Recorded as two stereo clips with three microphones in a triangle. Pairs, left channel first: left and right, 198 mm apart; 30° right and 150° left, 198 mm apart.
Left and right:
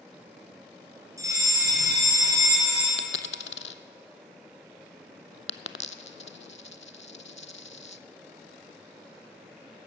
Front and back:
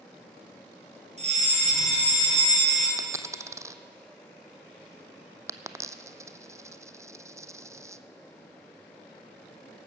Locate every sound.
1.2 s a fire alarm: 160° right, 4 m
3.0 s a dropped coin: 75° left, 0.6 m